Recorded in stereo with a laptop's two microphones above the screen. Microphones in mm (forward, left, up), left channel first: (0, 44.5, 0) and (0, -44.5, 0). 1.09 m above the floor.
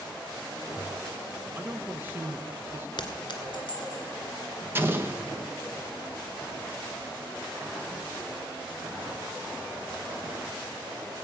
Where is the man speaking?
25° right (ahead or behind), 1.0 m.